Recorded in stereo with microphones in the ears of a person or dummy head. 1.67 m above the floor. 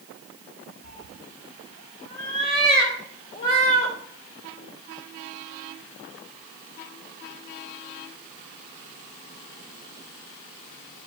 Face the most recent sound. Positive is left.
turn(degrees=35)  # may be behind; listen again after turning